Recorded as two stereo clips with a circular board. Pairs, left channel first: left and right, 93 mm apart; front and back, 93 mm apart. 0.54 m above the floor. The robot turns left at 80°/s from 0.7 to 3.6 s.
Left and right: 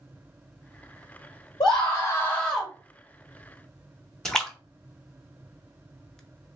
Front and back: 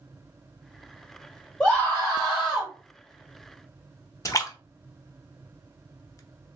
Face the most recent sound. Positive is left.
turn(degrees=10)